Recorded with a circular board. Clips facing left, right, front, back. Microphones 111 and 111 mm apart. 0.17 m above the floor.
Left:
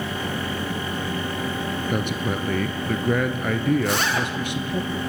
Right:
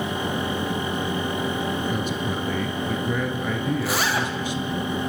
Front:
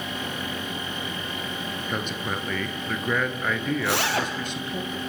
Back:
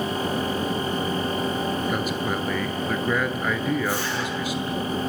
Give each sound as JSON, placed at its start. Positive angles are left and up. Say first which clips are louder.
{"t": 1.9, "sound": "a man speaking", "louder": "left 1 dB, back 4 dB", "azimuth_deg": 95, "distance_m": 2.5}
{"t": 3.8, "sound": "a zipper", "louder": "left 1 dB, front 1 dB", "azimuth_deg": -5, "distance_m": 2.5}